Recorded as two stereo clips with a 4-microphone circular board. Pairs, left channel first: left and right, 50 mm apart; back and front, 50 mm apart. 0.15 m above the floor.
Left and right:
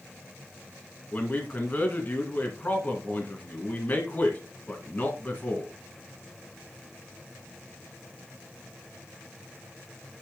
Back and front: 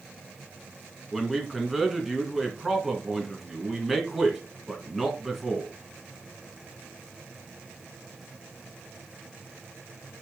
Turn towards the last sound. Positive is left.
turn(degrees=85)